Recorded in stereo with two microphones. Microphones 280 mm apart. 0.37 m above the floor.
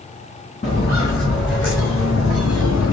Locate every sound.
0.6 s footsteps: 30° left (ahead or behind), 2.5 m; by 2.9 s 70° left (ahead or behind), 1.6 m